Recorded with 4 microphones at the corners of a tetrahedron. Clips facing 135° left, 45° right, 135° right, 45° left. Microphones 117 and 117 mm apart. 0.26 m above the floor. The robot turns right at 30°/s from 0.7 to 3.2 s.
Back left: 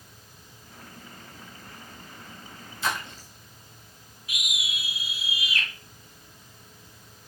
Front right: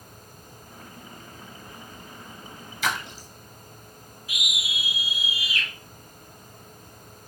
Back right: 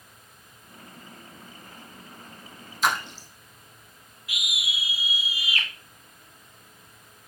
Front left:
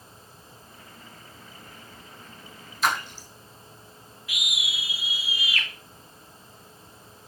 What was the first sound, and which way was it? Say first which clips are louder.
A splash: front right 1 dB, even; 45° right.